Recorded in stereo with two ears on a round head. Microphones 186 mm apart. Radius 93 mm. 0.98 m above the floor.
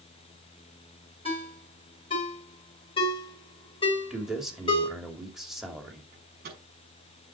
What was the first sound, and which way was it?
A ringtone, 25° left (ahead or behind).